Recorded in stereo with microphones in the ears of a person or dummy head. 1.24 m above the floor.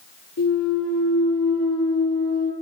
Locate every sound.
0.4 s a clunk: 55° left (ahead or behind), 6.5 m